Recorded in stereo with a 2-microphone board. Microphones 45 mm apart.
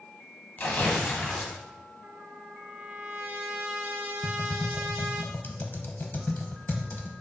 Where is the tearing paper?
40° left (ahead or behind), 0.7 m.